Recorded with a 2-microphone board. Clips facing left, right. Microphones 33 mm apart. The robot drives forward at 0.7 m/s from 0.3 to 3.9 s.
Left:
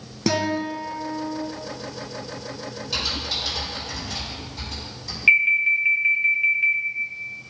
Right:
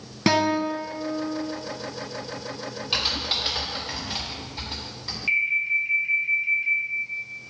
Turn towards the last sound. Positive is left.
turn(degrees=60)  # may be behind; listen again after turning